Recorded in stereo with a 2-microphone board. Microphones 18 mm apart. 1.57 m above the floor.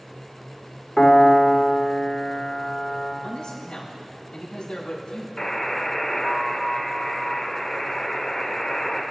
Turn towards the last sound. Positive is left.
turn(degrees=40)  # may be behind; listen again after turning